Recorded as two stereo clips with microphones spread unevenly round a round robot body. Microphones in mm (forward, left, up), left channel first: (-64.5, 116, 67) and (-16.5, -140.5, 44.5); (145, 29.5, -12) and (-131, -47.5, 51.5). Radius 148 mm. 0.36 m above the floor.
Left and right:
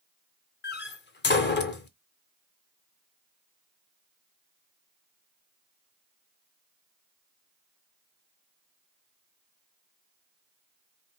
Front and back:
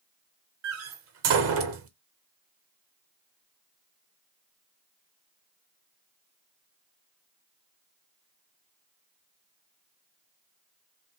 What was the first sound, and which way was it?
A door slam, 150° left.